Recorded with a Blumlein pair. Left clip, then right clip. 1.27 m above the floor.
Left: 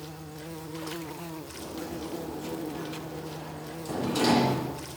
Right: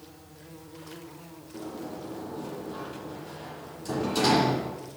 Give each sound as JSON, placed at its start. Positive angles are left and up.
{"t": 0.0, "sound": "an insect", "azimuth_deg": 65, "distance_m": 0.9}
{"t": 1.5, "sound": "a sliding door", "azimuth_deg": -5, "distance_m": 9.5}